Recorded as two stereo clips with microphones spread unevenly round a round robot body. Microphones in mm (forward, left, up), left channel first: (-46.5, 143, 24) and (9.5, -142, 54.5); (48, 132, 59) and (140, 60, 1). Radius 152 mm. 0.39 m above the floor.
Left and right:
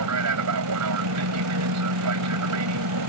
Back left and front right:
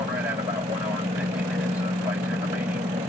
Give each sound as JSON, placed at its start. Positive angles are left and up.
{"t": 0.0, "sound": "an aircraft", "azimuth_deg": -95}